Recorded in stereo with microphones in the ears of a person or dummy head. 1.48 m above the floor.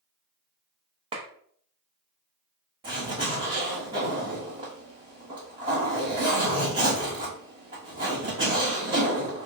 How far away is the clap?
About 0.6 m.